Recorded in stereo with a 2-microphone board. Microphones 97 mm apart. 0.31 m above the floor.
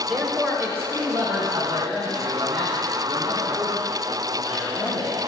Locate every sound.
0.1 s a man speaking: centre (ahead or behind), 1.1 m; by 5.1 s 45° right (ahead or behind), 5.5 m